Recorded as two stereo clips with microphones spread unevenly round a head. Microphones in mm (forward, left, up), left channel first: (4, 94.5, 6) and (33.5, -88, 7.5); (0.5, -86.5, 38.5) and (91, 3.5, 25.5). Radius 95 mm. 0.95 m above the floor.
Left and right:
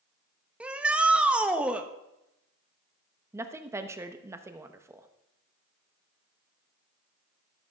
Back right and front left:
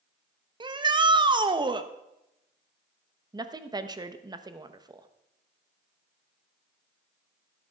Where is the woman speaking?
5° right, 1.1 m.